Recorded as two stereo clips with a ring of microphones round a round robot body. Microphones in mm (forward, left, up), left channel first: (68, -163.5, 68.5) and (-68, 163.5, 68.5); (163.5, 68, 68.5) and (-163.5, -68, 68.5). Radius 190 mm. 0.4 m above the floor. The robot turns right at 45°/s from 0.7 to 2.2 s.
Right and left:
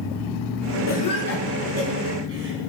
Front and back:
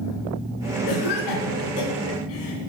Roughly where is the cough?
Ahead right.